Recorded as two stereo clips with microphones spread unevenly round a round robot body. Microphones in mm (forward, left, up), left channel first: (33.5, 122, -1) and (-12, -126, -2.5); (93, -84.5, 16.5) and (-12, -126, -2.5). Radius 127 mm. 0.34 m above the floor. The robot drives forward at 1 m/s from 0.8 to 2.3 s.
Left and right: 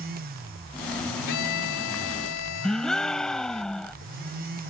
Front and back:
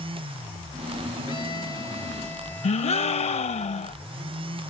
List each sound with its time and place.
1.3 s a violin: 90° left; by 3.6 s 105° left
2.6 s a gasp: 10° right